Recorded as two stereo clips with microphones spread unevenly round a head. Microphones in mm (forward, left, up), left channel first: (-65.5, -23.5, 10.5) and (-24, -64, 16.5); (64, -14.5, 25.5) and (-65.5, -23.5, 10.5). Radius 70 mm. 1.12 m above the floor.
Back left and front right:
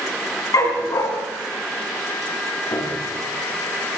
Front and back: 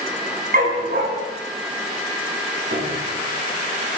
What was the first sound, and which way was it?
A dog barking, 150° left.